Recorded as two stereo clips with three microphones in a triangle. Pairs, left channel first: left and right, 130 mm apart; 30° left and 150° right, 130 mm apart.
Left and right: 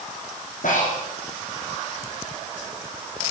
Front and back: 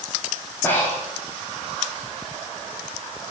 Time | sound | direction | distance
0.6 | breathing | 105° left | 4 m